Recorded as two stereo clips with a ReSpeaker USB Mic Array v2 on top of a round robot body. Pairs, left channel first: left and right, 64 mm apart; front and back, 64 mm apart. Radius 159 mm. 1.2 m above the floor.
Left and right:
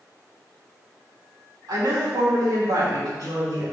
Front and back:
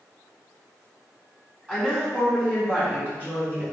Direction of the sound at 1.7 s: 100° right.